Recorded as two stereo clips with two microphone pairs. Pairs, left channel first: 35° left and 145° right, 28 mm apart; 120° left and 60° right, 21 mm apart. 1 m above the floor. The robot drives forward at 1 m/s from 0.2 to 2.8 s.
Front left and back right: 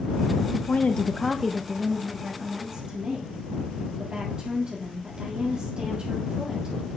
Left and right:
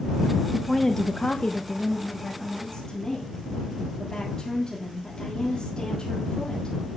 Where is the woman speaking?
35° left, 0.7 m; by 6.8 s 170° left, 1.8 m.